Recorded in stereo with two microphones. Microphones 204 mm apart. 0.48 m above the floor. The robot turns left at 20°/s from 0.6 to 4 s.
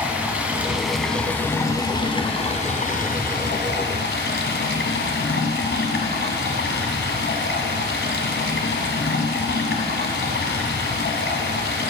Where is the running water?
175° right, 1.7 m; by 11.9 s 120° left, 1.7 m.